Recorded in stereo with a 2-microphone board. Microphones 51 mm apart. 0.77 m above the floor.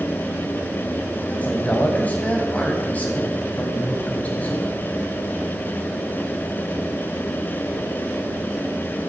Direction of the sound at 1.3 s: 30° left (ahead or behind).